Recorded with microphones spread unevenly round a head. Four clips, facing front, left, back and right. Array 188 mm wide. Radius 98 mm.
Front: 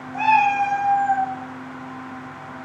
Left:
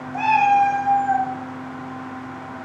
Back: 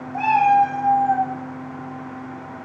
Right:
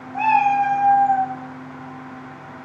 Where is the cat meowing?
140° left, 0.5 m.